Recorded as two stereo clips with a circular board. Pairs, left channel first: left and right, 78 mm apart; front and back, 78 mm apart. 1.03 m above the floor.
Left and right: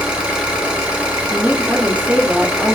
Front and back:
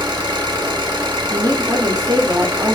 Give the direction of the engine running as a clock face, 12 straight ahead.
6 o'clock.